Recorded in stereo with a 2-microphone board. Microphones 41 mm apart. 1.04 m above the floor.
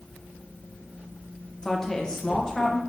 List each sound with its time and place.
1.6 s a woman speaking: 15° left (ahead or behind), 0.8 m